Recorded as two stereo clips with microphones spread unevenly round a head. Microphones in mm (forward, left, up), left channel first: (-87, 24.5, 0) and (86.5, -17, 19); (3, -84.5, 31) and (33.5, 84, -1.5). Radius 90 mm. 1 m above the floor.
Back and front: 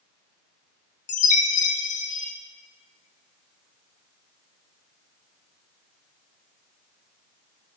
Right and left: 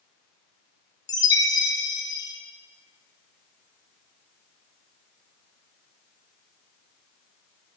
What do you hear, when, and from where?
1.1 s a chime: 175° right, 0.8 m